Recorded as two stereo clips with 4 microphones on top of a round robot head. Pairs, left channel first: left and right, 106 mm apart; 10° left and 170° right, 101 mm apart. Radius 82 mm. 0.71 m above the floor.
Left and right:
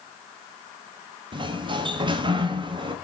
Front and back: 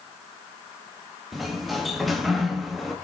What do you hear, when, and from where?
1.3 s a sliding door: 80° right, 1.3 m